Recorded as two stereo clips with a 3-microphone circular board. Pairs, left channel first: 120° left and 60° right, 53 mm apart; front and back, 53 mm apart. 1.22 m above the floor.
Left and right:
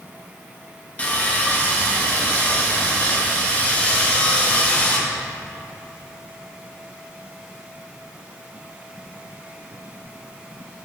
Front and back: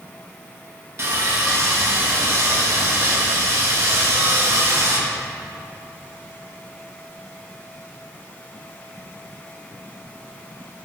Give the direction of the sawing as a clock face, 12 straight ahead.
6 o'clock.